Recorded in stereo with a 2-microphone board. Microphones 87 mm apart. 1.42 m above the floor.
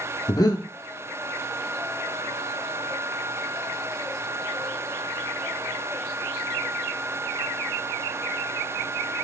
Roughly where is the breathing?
Left.